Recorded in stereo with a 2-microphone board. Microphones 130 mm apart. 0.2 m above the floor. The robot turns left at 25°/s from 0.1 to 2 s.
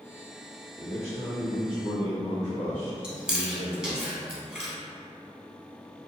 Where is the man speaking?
70° left, 2.0 m; by 4.0 s 40° left, 2.0 m.